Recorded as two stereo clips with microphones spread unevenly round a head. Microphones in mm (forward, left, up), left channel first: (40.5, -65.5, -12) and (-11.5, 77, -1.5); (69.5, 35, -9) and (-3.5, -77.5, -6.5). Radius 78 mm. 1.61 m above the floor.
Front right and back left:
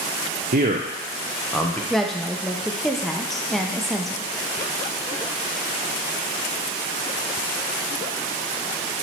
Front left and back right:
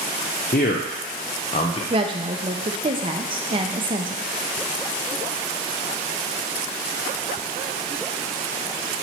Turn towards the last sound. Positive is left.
turn(degrees=-165)